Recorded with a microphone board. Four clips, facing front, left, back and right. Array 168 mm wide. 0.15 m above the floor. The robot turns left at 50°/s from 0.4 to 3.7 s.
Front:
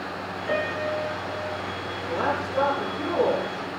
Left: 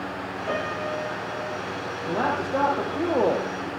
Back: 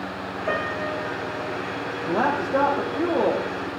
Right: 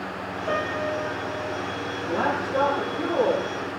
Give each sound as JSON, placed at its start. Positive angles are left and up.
{"t": 0.5, "sound": "a piano", "azimuth_deg": -165, "distance_m": 7.5}
{"t": 2.1, "sound": "a man speaking", "azimuth_deg": 170, "distance_m": 5.0}